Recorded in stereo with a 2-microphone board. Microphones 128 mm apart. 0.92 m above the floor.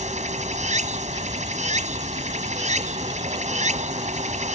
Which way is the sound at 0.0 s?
70° right (ahead or behind).